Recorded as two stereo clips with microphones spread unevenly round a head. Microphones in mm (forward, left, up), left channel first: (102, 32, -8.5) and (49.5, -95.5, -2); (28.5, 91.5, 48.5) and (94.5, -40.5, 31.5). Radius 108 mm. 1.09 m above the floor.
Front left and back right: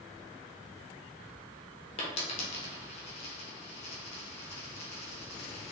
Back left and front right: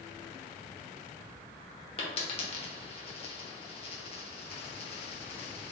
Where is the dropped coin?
95° left, 0.9 m.